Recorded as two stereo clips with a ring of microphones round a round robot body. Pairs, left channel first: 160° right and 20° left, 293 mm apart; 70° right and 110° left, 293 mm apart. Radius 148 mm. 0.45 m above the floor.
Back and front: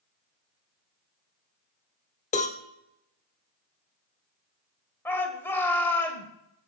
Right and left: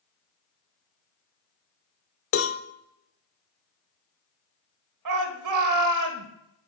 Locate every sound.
2.3 s a cowbell: 95° right, 1.0 m
5.0 s a shout: 120° left, 1.7 m